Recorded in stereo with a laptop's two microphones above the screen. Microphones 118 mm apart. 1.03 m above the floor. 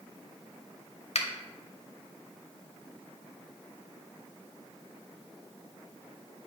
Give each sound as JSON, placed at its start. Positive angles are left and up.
{"t": 1.1, "sound": "a finger snap", "side_deg": 60, "distance_m": 0.8}